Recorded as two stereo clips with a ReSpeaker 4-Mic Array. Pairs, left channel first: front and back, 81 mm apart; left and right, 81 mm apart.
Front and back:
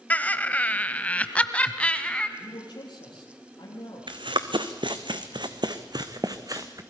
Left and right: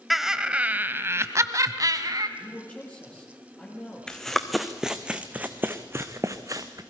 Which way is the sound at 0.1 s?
5° right.